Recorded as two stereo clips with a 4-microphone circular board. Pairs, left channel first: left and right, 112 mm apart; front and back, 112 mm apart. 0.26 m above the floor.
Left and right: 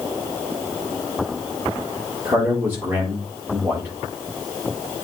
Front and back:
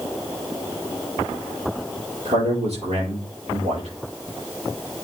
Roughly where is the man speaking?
Behind.